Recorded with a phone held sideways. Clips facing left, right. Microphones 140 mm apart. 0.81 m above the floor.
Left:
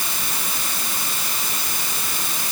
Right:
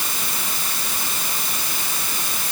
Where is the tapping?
I don't hear tapping.